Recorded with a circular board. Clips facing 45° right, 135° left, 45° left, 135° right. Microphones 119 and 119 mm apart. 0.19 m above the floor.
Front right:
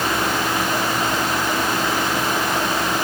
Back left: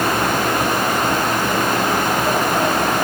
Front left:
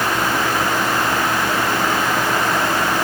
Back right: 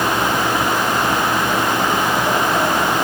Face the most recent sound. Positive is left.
No sound to turn to.